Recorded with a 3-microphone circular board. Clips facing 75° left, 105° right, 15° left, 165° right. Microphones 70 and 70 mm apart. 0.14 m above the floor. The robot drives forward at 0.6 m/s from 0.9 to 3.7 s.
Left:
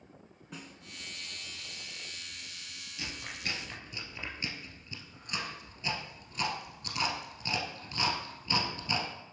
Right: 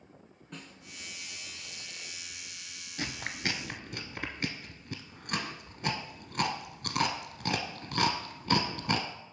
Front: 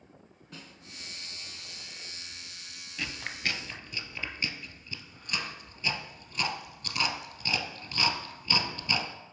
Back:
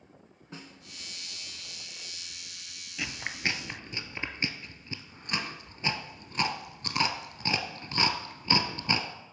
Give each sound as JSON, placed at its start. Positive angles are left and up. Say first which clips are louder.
{"t": 0.5, "sound": "a snare drum", "louder": "even, back 3 dB", "azimuth_deg": 155, "distance_m": 0.8}
{"t": 3.0, "sound": "chewing", "louder": "right 5 dB, back 2 dB", "azimuth_deg": -85, "distance_m": 0.7}